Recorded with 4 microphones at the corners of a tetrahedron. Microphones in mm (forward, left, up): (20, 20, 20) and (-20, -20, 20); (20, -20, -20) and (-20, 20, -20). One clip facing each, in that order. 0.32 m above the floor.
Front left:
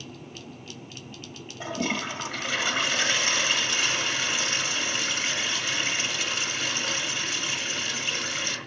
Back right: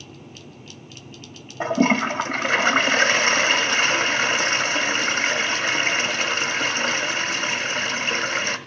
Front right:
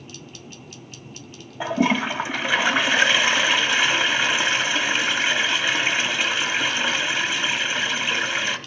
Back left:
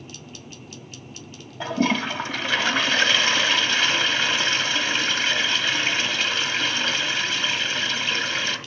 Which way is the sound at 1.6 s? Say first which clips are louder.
Back right 10 dB, front right 2 dB; 115° right.